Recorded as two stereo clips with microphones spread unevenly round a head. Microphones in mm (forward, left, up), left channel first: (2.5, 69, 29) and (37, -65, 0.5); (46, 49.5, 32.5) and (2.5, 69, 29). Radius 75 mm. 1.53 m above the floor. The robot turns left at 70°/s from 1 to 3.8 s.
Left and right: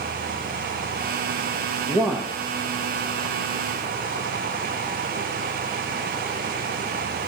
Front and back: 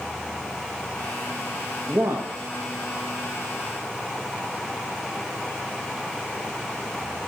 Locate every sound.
1.9 s a man speaking: 140° right, 0.7 m; by 2.4 s straight behind, 0.7 m